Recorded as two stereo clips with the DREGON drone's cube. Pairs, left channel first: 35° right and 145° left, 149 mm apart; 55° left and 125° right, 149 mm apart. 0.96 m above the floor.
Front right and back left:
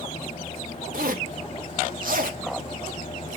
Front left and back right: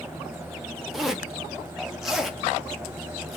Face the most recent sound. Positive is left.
turn(degrees=150)